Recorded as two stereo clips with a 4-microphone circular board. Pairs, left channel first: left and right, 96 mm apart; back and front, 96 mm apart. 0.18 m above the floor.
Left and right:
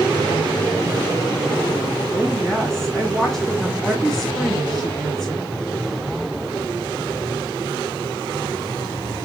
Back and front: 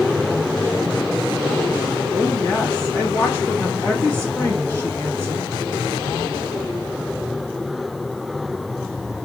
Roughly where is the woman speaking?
Behind.